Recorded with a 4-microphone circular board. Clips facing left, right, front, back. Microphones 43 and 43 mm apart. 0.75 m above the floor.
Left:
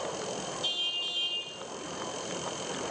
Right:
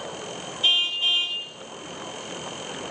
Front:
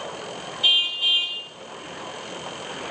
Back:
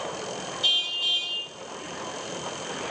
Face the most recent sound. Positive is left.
turn(degrees=-55)